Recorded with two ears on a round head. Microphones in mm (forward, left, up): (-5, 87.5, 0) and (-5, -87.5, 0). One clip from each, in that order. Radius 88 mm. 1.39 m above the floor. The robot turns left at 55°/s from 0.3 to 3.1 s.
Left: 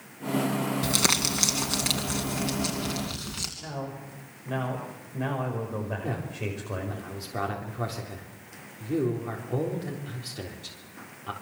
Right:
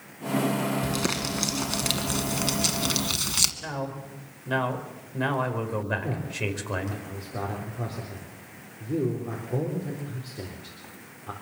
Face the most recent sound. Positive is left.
turn(degrees=65)  # may be behind; listen again after turning